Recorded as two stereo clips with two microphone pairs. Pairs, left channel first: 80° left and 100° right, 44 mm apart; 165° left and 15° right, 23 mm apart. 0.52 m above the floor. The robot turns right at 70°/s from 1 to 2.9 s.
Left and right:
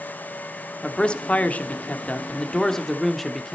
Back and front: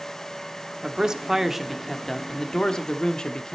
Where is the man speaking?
25° left, 1.0 m; by 3.5 s 160° left, 1.0 m.